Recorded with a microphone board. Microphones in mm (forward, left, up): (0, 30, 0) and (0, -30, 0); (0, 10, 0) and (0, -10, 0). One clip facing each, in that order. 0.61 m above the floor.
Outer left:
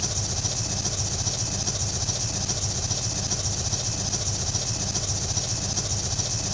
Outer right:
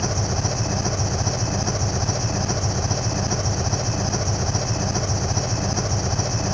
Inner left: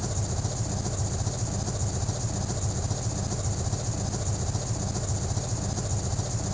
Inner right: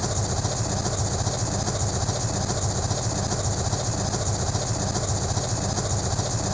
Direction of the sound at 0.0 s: 35° right (ahead or behind).